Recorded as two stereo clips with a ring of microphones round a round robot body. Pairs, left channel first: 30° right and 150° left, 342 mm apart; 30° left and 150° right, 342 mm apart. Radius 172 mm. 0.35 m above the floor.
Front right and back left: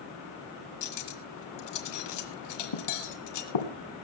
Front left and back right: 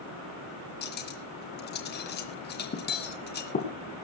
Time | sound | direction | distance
0.8 | cutlery clinking | 30° right | 2 m